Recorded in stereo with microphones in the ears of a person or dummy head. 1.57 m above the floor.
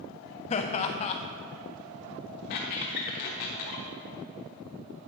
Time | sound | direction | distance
0.5 | laughter | 30° left (ahead or behind) | 0.6 m
2.5 | a squeak | 55° left (ahead or behind) | 1.2 m